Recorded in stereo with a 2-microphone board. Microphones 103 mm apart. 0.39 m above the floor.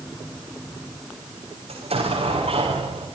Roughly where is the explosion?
Right.